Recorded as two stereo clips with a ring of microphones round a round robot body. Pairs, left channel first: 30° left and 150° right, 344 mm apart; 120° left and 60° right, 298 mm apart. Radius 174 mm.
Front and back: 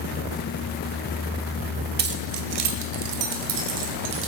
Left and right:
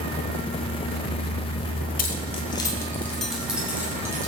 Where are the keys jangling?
165° left, 1.0 m; by 4.3 s 140° right, 2 m.